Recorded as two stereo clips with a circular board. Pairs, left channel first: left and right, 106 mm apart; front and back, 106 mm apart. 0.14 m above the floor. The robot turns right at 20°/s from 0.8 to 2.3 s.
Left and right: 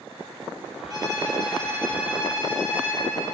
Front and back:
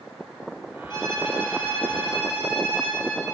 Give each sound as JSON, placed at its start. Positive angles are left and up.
{"t": 0.9, "sound": "a violin", "azimuth_deg": -40, "distance_m": 2.5}